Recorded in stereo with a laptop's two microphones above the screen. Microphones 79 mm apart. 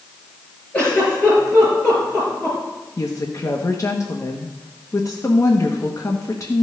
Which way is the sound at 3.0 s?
45° left (ahead or behind).